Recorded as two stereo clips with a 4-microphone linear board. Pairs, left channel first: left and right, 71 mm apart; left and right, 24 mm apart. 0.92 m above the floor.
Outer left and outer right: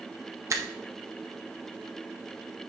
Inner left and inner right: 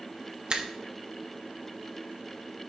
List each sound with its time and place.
0.5 s a finger snap: 45° right (ahead or behind), 0.7 m